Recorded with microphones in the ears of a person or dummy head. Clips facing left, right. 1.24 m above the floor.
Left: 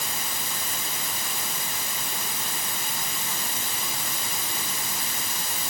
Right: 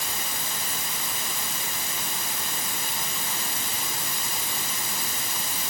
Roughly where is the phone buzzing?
No phone buzzing in this recording.